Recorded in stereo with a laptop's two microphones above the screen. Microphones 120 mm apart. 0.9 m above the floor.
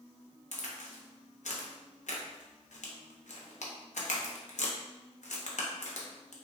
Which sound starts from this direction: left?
A crack, at 0.5 s.